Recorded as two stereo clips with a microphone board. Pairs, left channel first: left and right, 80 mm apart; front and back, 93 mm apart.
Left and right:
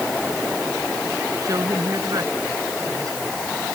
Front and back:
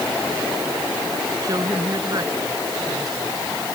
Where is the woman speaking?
135° right.